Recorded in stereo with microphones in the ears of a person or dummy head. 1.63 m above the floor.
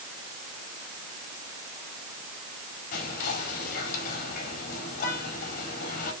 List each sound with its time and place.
2.9 s whispering: 50° left (ahead or behind), 4.5 m